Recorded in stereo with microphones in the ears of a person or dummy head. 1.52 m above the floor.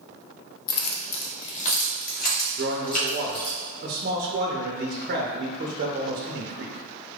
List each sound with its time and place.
0.7 s keys jangling: 35° left (ahead or behind), 0.7 m; by 3.6 s 50° left (ahead or behind), 2.5 m
2.6 s a man speaking: 45° right (ahead or behind), 0.7 m